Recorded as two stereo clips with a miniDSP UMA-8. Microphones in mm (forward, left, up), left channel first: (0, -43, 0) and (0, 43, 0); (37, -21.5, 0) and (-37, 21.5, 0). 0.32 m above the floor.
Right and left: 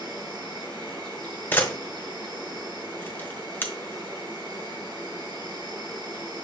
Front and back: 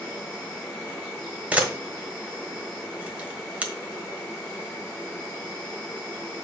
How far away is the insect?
About 4.5 m.